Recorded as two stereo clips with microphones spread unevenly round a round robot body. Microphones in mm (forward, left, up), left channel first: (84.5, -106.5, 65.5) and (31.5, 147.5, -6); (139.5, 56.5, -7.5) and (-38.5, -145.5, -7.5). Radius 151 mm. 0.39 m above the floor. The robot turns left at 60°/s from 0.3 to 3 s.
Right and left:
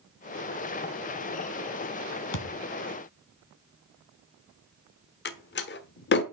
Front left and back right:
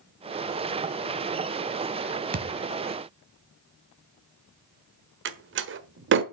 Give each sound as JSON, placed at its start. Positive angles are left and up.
{"t": 2.3, "sound": "a thud", "azimuth_deg": -70, "distance_m": 2.0}
{"t": 5.2, "sound": "a door slam", "azimuth_deg": -130, "distance_m": 1.2}